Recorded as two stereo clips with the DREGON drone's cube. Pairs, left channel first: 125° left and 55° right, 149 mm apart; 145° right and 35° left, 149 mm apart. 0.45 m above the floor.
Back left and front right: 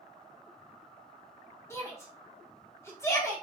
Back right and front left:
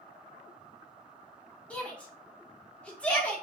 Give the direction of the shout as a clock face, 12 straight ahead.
7 o'clock.